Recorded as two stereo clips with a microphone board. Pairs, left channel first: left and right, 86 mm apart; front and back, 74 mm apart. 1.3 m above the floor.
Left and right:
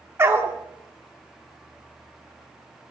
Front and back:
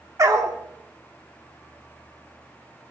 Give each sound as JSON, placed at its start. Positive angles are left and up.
{"t": 0.2, "sound": "a dog barking", "azimuth_deg": -145, "distance_m": 1.3}